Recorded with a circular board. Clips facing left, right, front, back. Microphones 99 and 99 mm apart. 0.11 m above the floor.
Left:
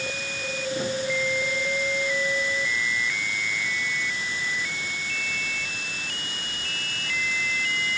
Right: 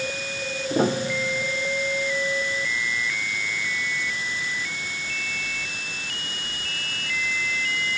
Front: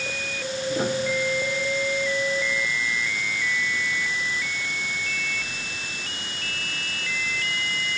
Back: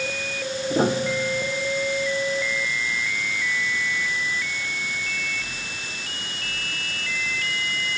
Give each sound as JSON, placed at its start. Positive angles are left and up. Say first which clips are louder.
{"t": 0.7, "sound": "a piano", "louder": "right 5 dB, back 4 dB", "azimuth_deg": -125}